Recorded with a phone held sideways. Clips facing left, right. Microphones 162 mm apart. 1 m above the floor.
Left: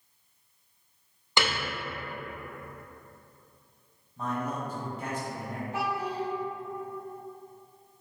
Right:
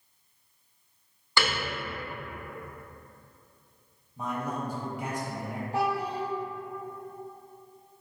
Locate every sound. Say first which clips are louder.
1.4 s a piano: even; 20° left (ahead or behind), 0.6 m
4.2 s a man speaking: even; 10° right (ahead or behind), 1.2 m
5.7 s a child speaking: right 3 dB; 30° right (ahead or behind), 0.6 m